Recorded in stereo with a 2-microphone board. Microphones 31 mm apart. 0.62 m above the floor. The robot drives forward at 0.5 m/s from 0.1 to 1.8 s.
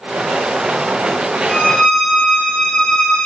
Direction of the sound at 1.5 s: 30° left (ahead or behind).